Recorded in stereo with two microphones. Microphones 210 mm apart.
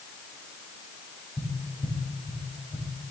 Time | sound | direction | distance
1.4 | tapping | 15° left (ahead or behind) | 4 m